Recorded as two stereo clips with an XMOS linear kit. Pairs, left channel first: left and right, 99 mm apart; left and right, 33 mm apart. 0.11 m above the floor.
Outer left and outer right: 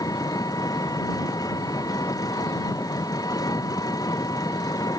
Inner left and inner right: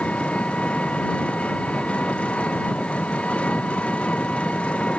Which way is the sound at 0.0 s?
35° left (ahead or behind).